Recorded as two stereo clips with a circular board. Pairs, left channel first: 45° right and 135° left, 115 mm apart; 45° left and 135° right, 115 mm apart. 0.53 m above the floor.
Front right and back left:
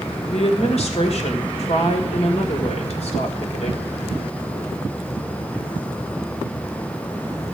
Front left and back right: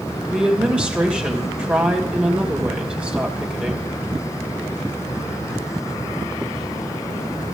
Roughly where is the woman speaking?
Ahead right.